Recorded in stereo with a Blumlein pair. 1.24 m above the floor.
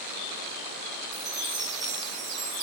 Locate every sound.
1.1 s a chime: 15° right, 6.5 m